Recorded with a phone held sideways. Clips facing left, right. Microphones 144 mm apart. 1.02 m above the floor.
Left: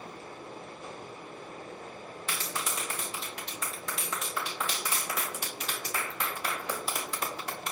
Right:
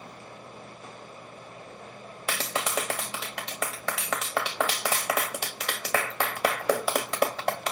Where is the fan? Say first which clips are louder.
Left 1 dB; 45° left (ahead or behind), 3 m.